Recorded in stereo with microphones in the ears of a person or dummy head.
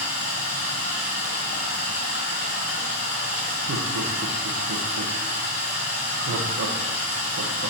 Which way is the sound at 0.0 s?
45° left (ahead or behind).